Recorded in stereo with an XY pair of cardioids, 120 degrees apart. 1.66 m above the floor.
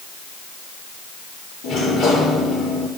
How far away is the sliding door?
About 7 m.